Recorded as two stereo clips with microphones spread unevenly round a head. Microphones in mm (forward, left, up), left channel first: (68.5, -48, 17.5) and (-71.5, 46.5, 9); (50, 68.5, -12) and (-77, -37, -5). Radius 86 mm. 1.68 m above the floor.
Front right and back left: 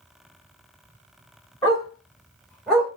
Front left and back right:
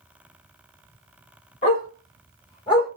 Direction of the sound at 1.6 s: 30° left.